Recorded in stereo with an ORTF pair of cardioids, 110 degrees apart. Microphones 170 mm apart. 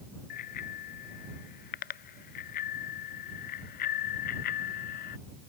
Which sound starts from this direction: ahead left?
A bicycle bell, at 0.3 s.